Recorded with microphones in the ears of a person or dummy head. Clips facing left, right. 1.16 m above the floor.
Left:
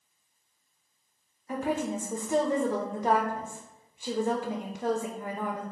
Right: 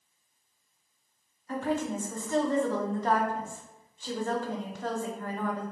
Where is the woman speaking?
10° left (ahead or behind), 0.6 m.